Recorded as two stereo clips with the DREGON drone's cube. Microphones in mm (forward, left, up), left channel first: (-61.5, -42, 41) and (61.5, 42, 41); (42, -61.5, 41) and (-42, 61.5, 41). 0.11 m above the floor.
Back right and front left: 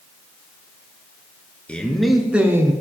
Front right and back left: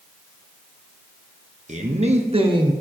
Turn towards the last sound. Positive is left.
turn(degrees=90)